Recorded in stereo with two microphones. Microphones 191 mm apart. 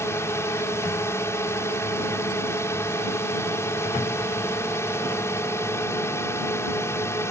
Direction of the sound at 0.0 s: 15° left (ahead or behind).